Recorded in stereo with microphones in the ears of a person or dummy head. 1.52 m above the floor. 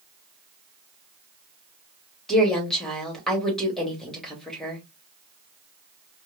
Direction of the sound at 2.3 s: 5° left (ahead or behind).